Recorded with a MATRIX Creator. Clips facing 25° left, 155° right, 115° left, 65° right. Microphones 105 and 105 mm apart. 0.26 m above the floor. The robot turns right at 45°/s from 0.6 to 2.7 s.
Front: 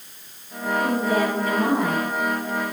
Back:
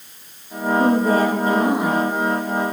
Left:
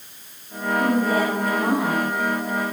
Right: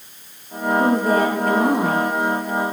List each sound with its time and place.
0.8 s a woman speaking: 125° right, 5.5 m; by 2.1 s 70° right, 5.5 m